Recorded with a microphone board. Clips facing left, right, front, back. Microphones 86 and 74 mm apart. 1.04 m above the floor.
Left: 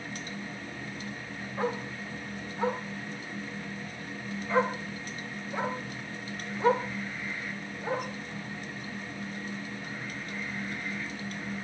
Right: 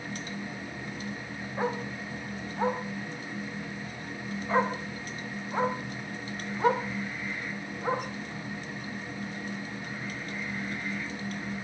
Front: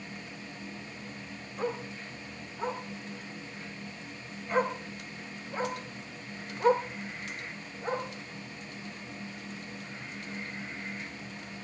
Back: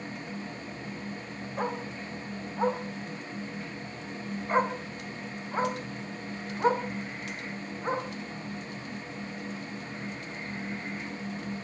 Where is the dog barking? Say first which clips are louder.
Right 1 dB, back 1 dB; 155° right, 3 m; by 8.1 s 125° right, 6 m.